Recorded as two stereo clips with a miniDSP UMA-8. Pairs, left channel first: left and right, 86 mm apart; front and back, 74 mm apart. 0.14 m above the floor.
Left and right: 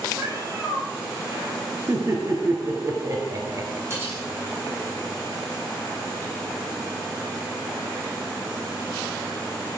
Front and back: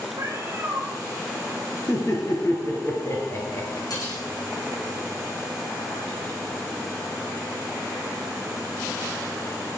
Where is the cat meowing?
140° right, 1.5 m.